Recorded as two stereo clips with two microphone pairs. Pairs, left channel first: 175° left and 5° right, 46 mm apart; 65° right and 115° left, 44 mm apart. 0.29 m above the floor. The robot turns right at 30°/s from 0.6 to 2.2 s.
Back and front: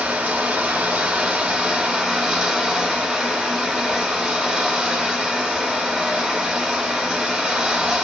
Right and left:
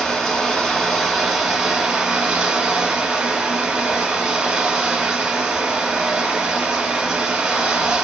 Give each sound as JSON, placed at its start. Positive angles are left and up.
{"t": 0.0, "sound": "running water", "azimuth_deg": 15, "distance_m": 0.9}